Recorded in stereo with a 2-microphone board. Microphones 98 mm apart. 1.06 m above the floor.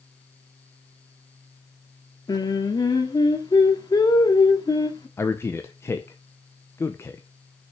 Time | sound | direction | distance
2.3 | singing | 40° left (ahead or behind) | 1.4 m
5.2 | a man speaking | 25° left (ahead or behind) | 0.8 m